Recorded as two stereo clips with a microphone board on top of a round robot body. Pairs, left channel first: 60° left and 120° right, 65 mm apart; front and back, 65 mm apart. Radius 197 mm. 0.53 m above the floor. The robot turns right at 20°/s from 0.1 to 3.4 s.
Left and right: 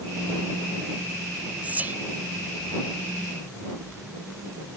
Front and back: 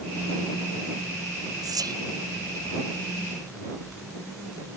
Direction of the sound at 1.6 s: 175° left.